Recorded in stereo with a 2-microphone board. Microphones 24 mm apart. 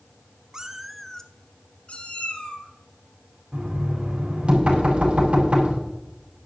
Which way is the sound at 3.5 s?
50° right (ahead or behind).